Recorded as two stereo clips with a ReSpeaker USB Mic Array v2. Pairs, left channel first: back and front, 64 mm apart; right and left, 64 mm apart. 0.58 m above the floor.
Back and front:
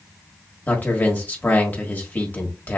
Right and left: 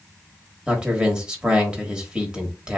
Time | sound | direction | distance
0.7 | a man speaking | 150° left | 1.3 m